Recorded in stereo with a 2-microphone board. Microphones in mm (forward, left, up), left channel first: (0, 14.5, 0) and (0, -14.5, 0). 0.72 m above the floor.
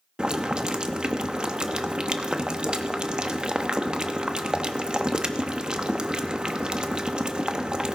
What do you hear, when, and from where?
0.2 s boiling: 30° right (ahead or behind), 0.9 m